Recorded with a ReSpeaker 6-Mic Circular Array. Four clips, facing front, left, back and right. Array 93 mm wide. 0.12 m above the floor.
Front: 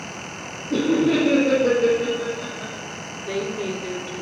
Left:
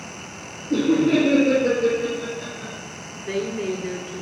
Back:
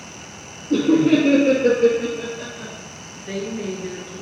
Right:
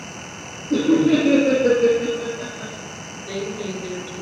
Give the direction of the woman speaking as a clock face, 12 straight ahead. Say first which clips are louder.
Left 2 dB, front 1 dB; 8 o'clock.